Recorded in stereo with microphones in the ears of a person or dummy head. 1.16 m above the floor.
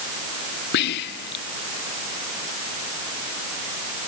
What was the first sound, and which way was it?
Whispering, 60° left (ahead or behind).